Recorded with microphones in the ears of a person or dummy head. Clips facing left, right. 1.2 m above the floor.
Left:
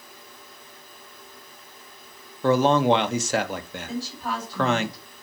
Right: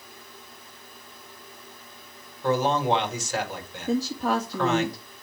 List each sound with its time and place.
2.4 s a man speaking: 60° left (ahead or behind), 1.6 m
3.9 s a woman speaking: 40° right (ahead or behind), 1.9 m